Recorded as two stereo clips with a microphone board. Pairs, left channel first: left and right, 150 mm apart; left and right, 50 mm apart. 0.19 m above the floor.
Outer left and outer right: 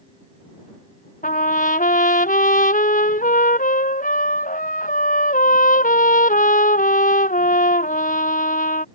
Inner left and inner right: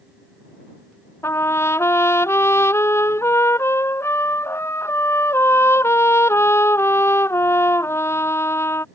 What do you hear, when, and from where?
1.2 s a trumpet: 65° left (ahead or behind)